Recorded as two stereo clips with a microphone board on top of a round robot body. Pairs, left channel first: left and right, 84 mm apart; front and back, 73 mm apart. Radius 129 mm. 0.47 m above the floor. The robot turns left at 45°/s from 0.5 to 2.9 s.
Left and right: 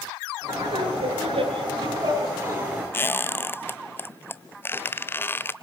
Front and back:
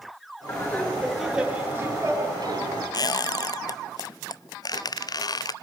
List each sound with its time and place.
0.5 s laughter: 60° right, 8 m; by 2.8 s 165° right, 8 m
2.9 s a squeak: 25° left, 0.8 m